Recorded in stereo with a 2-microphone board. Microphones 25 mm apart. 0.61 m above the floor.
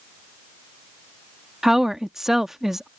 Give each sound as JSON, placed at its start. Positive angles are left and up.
{"t": 1.6, "sound": "a woman speaking", "side_deg": -15}